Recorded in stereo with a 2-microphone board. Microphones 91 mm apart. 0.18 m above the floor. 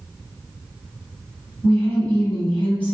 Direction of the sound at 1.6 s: 15° left (ahead or behind).